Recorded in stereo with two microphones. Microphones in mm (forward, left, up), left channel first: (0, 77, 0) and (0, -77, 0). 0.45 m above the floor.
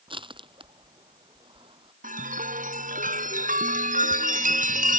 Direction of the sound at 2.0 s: 60° right (ahead or behind).